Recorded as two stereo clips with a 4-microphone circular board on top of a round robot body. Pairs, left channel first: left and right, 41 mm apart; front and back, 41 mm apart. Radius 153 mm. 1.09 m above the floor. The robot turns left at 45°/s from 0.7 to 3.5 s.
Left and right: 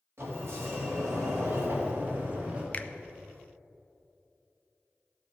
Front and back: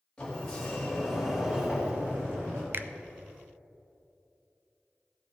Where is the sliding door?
70° right, 2 m; by 2.6 s 160° right, 2 m.